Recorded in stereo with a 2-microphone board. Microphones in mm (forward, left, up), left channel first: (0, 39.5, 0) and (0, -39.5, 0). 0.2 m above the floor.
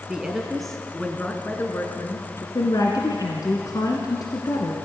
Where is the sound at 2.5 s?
55° left (ahead or behind), 2 m.